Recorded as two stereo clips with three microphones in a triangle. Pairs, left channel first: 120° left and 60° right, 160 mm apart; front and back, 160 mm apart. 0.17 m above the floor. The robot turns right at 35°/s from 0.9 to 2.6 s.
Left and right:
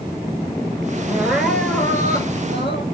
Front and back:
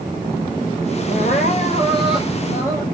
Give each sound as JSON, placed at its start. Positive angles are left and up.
{"t": 1.1, "sound": "crying", "azimuth_deg": 15, "distance_m": 1.8}